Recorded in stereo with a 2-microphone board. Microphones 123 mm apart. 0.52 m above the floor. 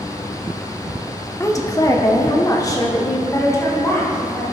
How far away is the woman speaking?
About 0.9 m.